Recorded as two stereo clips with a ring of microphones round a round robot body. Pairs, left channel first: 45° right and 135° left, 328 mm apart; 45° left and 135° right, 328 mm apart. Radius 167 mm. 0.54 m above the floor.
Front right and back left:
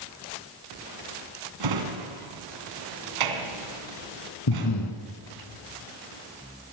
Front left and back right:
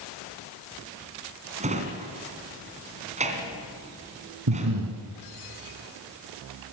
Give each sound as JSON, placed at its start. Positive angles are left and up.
{"t": 1.6, "sound": "a drawer", "azimuth_deg": 155, "distance_m": 2.5}
{"t": 4.5, "sound": "breathing", "azimuth_deg": -85, "distance_m": 2.5}